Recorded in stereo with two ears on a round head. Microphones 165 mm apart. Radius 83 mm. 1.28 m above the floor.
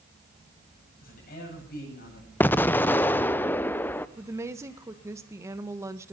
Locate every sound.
1.0 s a man speaking: 55° left (ahead or behind), 9 m
2.4 s an explosion: 10° left (ahead or behind), 0.7 m
4.2 s a woman speaking: 15° right (ahead or behind), 1.5 m